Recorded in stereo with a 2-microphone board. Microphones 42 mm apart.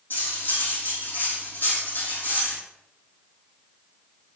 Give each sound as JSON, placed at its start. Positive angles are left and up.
{"t": 0.1, "sound": "cutlery clinking", "side_deg": 55, "distance_m": 3.5}